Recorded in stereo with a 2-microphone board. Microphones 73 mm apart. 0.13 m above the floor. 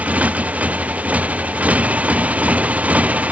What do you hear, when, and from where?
0.0 s a motorcycle: 20° right (ahead or behind)